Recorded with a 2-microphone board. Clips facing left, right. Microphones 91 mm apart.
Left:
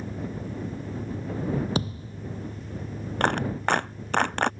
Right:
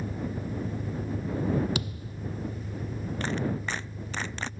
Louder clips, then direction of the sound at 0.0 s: Even; 5° right (ahead or behind).